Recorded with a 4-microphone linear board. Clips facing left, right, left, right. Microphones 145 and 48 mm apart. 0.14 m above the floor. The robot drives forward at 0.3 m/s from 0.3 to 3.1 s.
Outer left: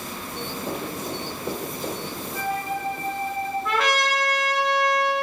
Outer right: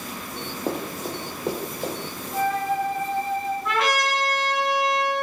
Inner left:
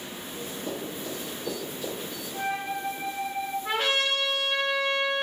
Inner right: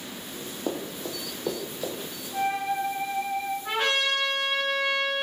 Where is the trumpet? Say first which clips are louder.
Outer left 1 dB, even; centre (ahead or behind), 1.2 m.